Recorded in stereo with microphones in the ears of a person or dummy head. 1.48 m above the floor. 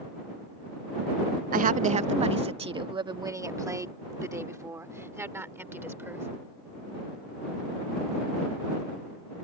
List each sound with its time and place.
1.5 s a woman speaking: 50° right (ahead or behind); by 6.3 s 15° right (ahead or behind)